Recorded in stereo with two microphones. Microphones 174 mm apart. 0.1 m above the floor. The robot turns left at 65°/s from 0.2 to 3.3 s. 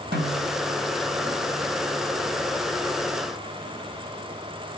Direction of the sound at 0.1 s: 65° right (ahead or behind).